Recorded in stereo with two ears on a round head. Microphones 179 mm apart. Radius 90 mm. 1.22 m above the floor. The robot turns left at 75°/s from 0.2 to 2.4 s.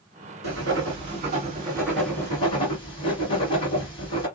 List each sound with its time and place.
0.4 s writing: 65° right, 2 m; by 4.3 s 150° left, 2 m